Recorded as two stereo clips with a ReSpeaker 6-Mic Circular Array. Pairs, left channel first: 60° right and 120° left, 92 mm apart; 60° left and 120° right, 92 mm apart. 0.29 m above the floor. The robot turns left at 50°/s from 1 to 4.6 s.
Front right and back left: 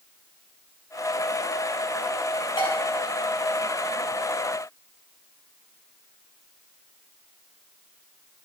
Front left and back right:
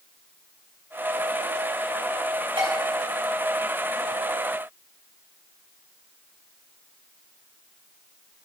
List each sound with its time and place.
2.6 s dishes clattering: 90° right, 5 m; by 2.7 s 100° right, 5 m